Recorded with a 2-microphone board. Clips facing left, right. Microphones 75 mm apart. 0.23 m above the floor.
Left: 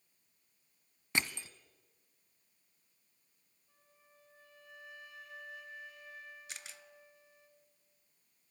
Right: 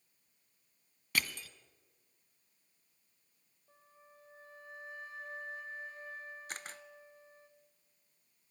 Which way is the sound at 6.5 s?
45° right (ahead or behind).